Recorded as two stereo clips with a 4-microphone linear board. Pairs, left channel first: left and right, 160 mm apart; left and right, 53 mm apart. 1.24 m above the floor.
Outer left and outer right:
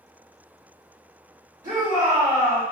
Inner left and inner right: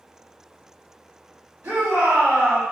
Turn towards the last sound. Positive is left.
turn(degrees=-55)  # may be behind; listen again after turning